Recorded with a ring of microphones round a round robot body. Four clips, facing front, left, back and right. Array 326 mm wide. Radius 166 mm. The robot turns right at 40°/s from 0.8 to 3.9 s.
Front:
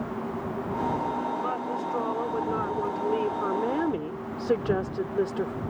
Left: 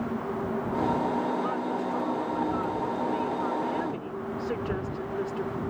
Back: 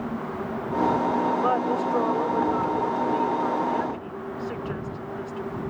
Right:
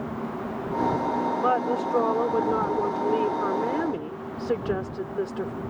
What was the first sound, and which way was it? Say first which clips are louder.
A woman speaking: right 5 dB, back 6 dB; 130° right.